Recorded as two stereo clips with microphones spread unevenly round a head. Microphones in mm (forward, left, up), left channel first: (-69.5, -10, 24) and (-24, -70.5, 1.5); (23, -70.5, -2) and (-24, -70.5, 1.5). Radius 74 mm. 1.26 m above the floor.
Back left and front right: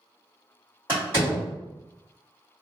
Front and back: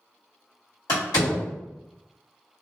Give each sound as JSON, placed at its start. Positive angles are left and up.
{"t": 0.9, "sound": "a door slam", "azimuth_deg": 20, "distance_m": 1.9}